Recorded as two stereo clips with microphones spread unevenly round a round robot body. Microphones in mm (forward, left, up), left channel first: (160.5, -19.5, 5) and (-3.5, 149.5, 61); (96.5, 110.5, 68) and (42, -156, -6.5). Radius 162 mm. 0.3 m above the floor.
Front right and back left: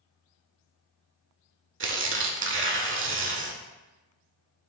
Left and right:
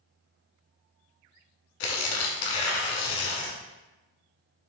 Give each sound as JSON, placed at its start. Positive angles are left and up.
{"t": 1.8, "sound": "tearing paper", "azimuth_deg": 95, "distance_m": 1.2}